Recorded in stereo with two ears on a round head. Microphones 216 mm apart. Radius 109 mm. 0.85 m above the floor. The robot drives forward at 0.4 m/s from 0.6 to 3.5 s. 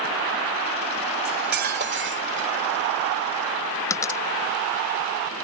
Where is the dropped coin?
15° left (ahead or behind).